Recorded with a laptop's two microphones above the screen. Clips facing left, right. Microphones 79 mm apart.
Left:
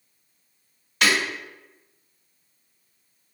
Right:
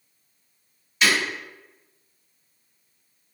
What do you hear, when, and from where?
1.0 s breaking glass: 65° left (ahead or behind), 1.5 m